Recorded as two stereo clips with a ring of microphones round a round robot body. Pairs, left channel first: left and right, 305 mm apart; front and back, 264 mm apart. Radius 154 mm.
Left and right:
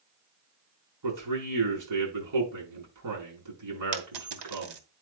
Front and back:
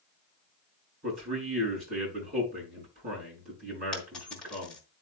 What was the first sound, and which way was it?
A man speaking, 115° right.